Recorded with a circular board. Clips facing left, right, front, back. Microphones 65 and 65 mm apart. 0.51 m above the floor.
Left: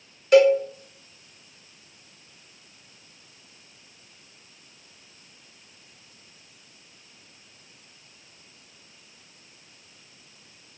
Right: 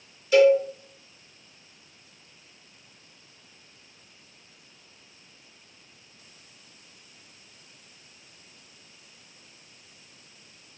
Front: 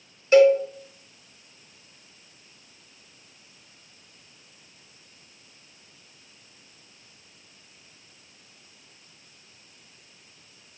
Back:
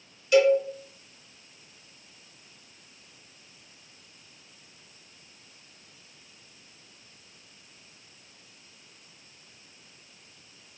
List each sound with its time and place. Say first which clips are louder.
0.3 s a cowbell: left 1 dB, front 4 dB; 55° left, 0.6 m